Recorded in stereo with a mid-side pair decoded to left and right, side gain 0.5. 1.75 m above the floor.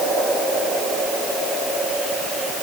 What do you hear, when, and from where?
Only background noise.